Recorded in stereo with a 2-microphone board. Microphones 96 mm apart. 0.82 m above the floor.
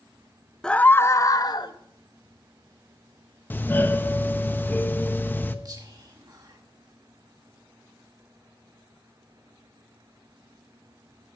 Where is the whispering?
40° right (ahead or behind), 1.1 m.